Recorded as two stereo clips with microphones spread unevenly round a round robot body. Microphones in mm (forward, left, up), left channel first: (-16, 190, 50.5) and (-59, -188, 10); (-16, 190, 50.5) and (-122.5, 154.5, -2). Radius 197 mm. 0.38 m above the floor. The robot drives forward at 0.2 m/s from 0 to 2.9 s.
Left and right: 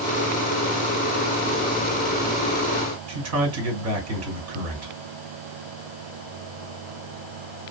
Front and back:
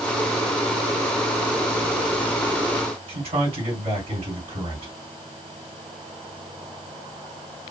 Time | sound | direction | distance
3.1 | a man speaking | 145° right | 2.5 m